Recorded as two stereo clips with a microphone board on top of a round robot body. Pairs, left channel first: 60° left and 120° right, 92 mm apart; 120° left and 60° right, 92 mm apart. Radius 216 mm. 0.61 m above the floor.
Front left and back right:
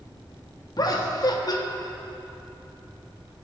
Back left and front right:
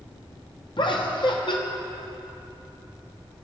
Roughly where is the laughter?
Left.